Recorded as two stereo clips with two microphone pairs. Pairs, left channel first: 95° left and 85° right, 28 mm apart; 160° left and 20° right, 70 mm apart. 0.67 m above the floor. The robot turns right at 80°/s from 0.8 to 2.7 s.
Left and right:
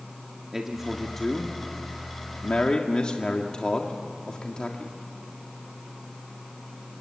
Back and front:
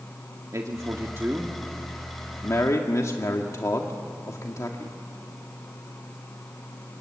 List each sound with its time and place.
0.5 s a man speaking: 10° right, 1.7 m; by 5.0 s 140° left, 1.7 m